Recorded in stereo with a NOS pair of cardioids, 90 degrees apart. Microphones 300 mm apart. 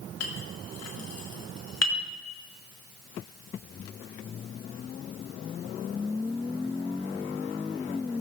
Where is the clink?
60° left, 3 m.